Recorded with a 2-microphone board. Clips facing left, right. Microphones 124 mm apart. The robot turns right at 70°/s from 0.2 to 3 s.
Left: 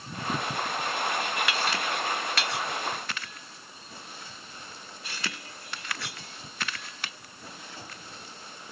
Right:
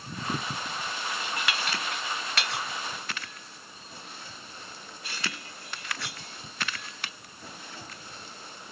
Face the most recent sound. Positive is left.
No sound to turn to.